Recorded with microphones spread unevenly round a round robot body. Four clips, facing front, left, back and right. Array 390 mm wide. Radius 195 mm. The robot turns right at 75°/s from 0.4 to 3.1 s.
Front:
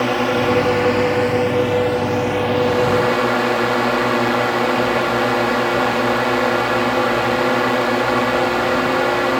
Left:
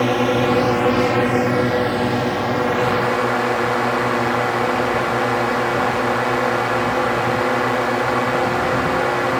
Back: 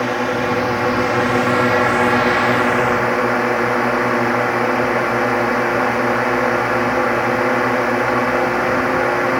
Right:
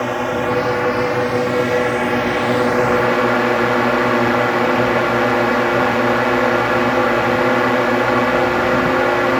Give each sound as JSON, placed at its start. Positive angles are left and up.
{"t": 0.0, "sound": "a drone", "azimuth_deg": 70}